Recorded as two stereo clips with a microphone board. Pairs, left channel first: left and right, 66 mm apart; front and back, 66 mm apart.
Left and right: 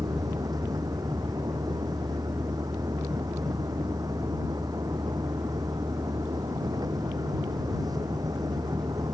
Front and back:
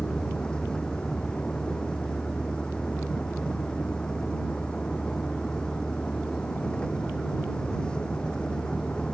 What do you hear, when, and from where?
0.0 s a vehicle: 75° right